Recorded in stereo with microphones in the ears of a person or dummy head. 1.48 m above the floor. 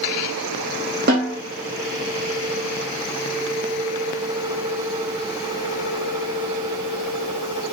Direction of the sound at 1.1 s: 55° right (ahead or behind).